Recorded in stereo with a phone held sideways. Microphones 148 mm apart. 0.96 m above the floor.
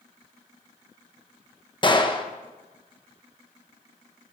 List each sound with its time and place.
1.8 s a gunshot: 30° left (ahead or behind), 1.0 m